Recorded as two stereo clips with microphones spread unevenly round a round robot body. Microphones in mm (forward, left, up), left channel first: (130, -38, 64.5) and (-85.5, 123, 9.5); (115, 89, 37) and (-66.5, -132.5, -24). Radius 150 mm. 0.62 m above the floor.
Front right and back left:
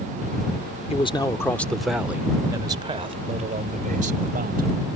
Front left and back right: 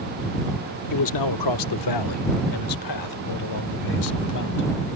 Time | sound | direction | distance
0.9 | a man speaking | 35° left | ?